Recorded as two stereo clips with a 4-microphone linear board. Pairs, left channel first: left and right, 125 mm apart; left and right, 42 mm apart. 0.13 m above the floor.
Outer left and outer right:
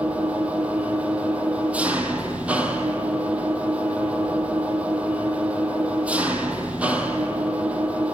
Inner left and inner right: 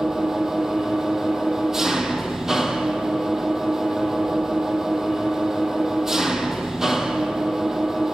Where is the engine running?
10° right (ahead or behind), 1.6 m.